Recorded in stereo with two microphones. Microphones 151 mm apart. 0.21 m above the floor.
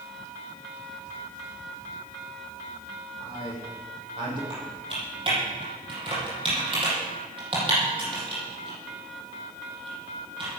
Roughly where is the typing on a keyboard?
Right.